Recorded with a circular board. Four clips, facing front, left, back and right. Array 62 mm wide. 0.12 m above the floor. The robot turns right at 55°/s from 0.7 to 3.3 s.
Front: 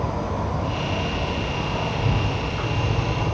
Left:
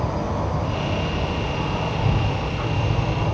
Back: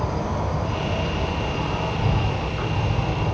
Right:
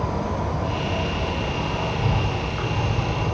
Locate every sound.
0.0 s an insect: 170° left, 1.5 m; by 3.4 s 50° right, 1.5 m